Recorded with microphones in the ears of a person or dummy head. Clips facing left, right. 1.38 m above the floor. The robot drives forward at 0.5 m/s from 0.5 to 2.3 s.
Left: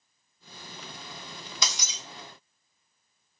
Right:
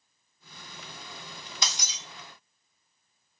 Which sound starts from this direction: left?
Breaking glass, at 1.6 s.